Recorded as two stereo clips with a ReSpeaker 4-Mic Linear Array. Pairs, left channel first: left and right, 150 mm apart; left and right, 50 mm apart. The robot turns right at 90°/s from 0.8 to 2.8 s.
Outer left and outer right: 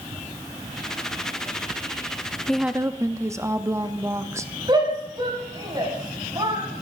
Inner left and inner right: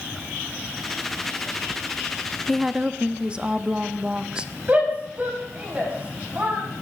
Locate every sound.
2.5 s a woman speaking: 5° left (ahead or behind), 0.7 m; by 4.5 s 20° right (ahead or behind), 0.7 m
4.7 s a shout: 30° right (ahead or behind), 5 m